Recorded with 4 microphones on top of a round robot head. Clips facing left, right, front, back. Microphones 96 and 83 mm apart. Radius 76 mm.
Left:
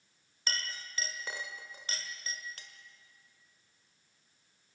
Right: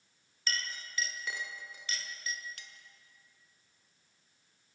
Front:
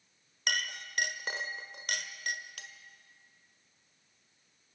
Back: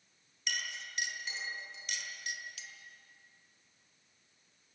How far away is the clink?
About 1.4 m.